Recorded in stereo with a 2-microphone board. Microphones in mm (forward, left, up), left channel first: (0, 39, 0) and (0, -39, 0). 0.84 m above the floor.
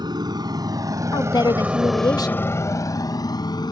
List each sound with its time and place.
0.0 s a motorcycle: 65° right (ahead or behind); by 3.7 s 65° left (ahead or behind)
1.1 s a woman speaking: 55° left (ahead or behind)